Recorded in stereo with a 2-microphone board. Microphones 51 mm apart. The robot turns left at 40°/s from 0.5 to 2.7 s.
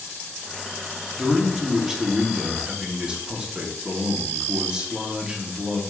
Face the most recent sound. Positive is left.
turn(degrees=-20)  # may be behind; listen again after turning